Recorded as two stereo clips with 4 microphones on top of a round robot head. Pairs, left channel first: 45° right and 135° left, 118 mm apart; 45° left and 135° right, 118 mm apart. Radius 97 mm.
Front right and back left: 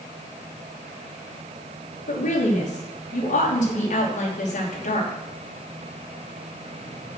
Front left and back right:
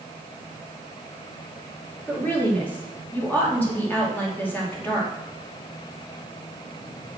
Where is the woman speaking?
30° right, 3 m.